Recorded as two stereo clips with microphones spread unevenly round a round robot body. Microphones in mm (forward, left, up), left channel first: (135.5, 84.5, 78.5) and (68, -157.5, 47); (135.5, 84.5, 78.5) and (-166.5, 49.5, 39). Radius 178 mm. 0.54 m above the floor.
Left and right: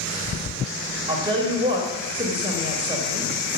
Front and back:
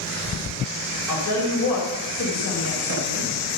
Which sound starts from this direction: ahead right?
A woman speaking, at 1.1 s.